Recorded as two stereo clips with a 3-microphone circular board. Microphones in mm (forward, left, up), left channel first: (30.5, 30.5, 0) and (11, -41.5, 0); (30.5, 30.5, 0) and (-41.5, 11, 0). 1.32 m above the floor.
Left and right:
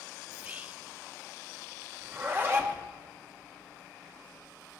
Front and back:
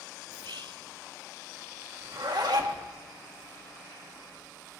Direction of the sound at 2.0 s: 160° right.